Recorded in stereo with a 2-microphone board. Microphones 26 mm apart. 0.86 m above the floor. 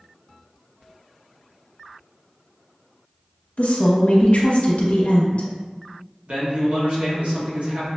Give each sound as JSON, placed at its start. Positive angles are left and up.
{"t": 3.6, "sound": "a woman speaking", "side_deg": 55, "distance_m": 0.7}
{"t": 6.3, "sound": "a man speaking", "side_deg": -60, "distance_m": 1.3}